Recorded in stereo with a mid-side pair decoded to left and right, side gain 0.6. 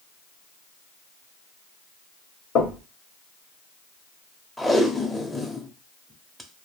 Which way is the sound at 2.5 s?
60° left.